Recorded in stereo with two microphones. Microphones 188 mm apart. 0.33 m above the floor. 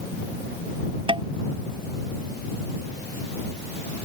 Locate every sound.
1.1 s tapping: 25° right (ahead or behind)